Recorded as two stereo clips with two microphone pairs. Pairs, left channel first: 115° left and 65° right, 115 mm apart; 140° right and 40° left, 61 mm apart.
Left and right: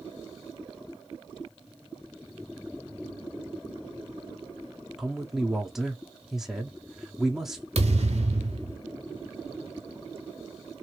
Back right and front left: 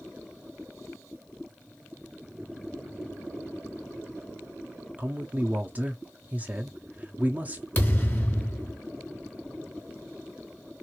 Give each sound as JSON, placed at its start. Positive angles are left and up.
{"t": 5.0, "sound": "a man speaking", "azimuth_deg": 15, "distance_m": 0.7}
{"t": 7.8, "sound": "a thud", "azimuth_deg": -85, "distance_m": 1.0}